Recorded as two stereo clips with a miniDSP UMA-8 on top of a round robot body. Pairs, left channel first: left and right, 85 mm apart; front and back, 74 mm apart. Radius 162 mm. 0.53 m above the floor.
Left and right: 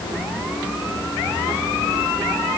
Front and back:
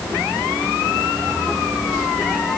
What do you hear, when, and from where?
Only background noise.